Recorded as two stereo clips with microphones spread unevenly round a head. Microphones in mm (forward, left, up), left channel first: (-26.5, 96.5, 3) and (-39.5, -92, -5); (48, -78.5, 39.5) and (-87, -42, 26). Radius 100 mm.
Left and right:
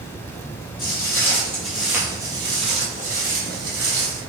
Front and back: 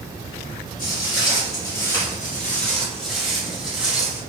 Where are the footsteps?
35° left, 1.4 m; by 4.2 s 110° right, 1.7 m.